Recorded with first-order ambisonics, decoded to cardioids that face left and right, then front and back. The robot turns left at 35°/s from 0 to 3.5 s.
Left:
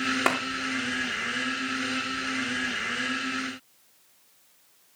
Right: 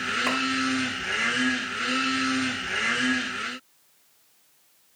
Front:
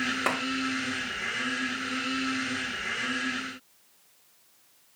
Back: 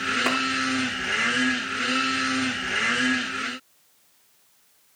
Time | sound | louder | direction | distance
0.3 | a clap | left 3 dB, back 2 dB | 85° left | 3.5 m